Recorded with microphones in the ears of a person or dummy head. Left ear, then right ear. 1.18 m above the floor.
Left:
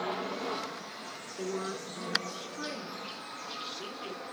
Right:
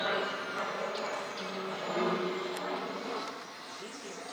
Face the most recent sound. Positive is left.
turn(degrees=35)  # may be behind; listen again after turning